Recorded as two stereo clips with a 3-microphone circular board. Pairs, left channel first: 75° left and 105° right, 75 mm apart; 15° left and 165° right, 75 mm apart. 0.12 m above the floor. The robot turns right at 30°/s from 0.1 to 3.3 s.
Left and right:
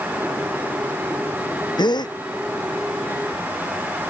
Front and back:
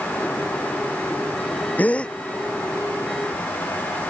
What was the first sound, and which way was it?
A gasp, 85° left.